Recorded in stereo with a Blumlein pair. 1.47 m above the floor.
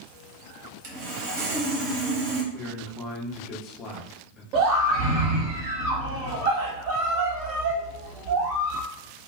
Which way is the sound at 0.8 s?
40° right.